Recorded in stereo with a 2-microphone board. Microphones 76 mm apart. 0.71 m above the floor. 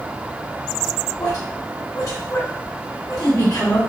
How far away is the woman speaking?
About 2.5 m.